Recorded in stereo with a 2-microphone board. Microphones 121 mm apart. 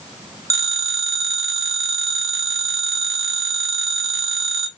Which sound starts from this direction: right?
A phone ringing, at 0.5 s.